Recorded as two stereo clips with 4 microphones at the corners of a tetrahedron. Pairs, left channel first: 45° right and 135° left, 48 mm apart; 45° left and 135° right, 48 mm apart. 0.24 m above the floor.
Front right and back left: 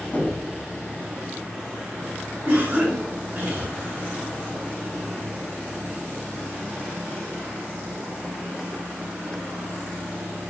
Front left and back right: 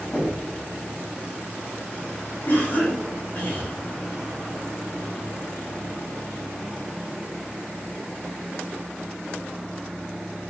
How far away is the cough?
About 2.5 m.